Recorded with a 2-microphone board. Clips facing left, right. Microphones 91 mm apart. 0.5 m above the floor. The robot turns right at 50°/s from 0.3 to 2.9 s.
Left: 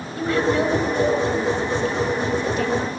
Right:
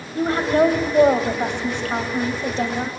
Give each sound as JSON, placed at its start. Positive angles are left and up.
{"t": 0.1, "sound": "a woman speaking", "azimuth_deg": -145, "distance_m": 2.5}